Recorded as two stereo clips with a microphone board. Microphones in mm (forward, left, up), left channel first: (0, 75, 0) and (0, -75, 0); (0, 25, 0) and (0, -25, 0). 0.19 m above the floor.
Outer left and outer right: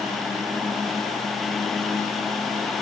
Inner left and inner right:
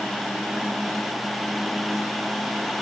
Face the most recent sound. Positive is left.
No sound to turn to.